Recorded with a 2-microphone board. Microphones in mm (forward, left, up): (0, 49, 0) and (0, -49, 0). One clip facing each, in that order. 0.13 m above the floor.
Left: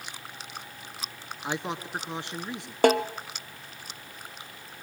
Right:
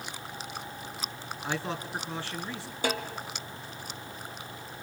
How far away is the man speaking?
About 1.4 m.